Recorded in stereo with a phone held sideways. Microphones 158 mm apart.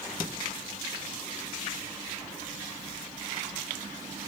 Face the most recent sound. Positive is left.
No sound to turn to.